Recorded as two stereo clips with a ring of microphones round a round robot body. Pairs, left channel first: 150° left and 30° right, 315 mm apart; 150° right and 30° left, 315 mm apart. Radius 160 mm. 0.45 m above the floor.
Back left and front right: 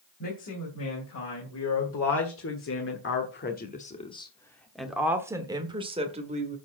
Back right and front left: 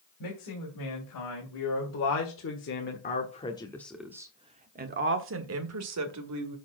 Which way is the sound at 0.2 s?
170° right.